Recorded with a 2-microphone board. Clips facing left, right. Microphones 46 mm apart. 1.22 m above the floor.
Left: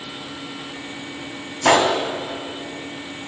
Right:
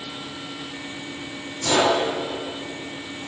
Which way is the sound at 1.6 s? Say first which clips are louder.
Left 4 dB; 60° left (ahead or behind).